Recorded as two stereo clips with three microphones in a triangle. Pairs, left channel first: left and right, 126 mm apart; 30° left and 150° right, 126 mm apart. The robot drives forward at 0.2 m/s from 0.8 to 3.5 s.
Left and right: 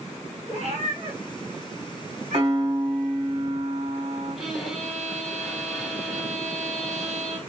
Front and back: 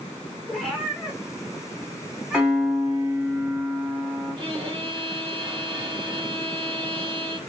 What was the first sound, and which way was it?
A cat meowing, 60° right.